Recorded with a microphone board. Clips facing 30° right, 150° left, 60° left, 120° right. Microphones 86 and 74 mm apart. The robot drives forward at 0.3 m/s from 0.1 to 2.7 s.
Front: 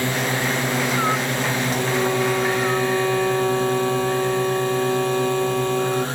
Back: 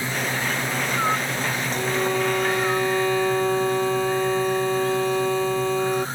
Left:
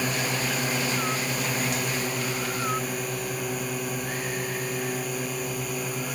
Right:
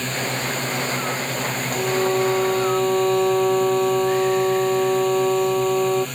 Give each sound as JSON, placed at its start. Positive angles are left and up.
{"t": 0.0, "sound": "a drone", "azimuth_deg": -20}
{"t": 1.7, "sound": "a violin", "azimuth_deg": -110}